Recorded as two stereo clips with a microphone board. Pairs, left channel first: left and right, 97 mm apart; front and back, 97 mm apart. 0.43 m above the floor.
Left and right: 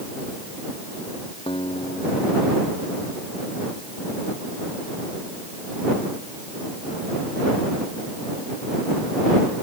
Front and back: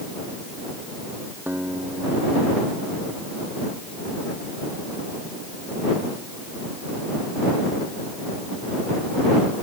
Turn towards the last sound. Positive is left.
turn(degrees=110)